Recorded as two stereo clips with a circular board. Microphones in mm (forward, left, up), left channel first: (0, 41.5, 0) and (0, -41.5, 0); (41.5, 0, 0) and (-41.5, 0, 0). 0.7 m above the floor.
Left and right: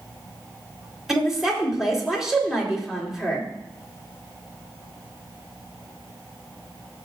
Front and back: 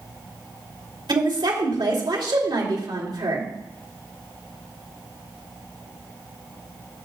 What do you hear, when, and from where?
1.1 s a woman speaking: 175° right, 3 m